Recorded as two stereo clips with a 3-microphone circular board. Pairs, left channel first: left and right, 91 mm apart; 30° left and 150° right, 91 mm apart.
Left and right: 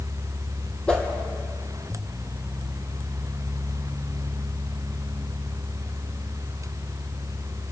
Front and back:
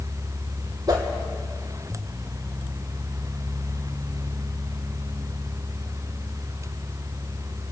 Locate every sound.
0.9 s a whoosh: 165° left, 3 m